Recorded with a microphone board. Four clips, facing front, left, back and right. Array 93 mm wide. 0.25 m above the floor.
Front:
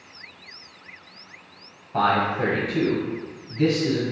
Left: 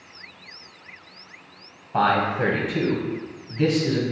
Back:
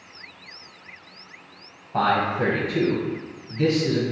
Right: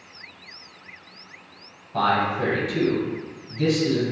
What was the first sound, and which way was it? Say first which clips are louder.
A man speaking: left 1 dB, even; 85° left.